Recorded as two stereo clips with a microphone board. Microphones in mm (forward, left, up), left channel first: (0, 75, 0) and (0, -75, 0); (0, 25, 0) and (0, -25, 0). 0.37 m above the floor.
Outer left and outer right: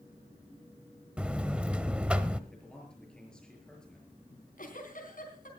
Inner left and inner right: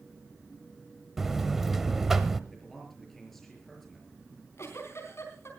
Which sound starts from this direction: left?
A giggle, at 4.3 s.